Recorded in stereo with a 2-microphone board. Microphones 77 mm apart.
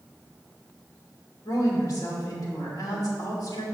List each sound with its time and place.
1.4 s a woman speaking: 55° left (ahead or behind), 2.5 m